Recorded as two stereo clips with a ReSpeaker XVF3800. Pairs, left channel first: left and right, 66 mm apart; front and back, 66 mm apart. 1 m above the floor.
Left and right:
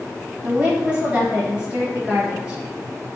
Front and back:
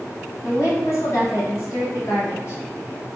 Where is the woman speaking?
25° right, 1.2 m.